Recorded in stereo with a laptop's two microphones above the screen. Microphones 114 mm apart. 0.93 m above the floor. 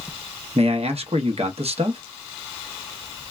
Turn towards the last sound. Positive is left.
turn(degrees=-65)  # may be behind; listen again after turning